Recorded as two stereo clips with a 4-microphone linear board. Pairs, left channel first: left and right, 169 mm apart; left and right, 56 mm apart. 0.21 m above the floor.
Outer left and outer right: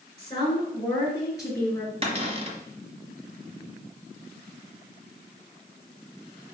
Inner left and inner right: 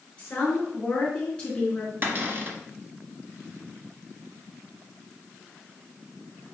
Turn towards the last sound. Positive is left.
turn(degrees=-35)  # may be behind; listen again after turning